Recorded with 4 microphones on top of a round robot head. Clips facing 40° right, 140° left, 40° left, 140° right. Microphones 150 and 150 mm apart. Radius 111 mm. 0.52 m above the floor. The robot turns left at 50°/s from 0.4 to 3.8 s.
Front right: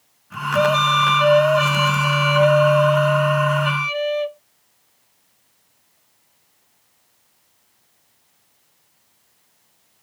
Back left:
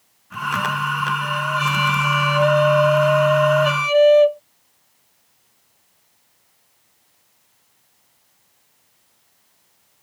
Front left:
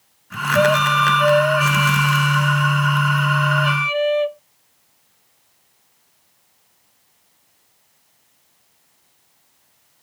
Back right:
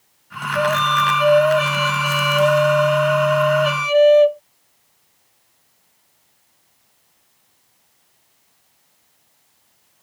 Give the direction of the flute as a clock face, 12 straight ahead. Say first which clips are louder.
Front right 9 dB, front left 3 dB; 1 o'clock.